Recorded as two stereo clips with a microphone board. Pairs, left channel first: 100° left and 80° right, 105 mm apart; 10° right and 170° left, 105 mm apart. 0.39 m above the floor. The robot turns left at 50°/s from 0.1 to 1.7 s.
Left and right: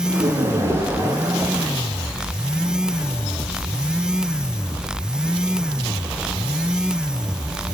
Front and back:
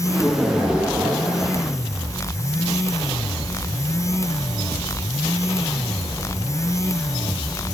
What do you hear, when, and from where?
0.1 s laughter: 80° right, 4.5 m; by 1.6 s 160° right, 4.5 m